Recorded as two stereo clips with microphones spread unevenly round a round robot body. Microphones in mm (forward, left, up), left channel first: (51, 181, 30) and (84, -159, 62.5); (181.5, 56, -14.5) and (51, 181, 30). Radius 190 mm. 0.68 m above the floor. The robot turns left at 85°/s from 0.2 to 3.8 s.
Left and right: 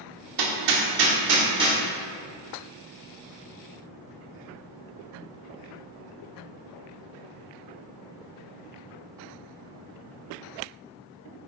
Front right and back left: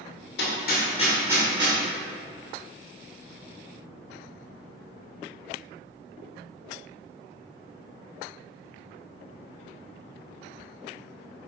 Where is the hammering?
60° right, 1.5 m; by 1.8 s 175° right, 1.5 m.